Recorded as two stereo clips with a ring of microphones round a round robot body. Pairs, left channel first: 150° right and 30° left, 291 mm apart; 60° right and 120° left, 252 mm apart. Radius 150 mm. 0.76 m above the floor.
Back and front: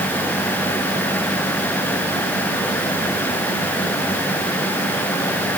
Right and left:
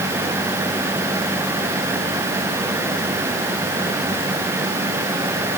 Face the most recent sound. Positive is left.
No sound to turn to.